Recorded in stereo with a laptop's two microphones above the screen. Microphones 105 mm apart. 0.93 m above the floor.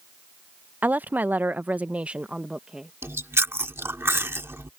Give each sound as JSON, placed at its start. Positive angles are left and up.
{"t": 0.8, "sound": "a woman speaking", "side_deg": -15}
{"t": 3.0, "sound": "chewing", "side_deg": -25}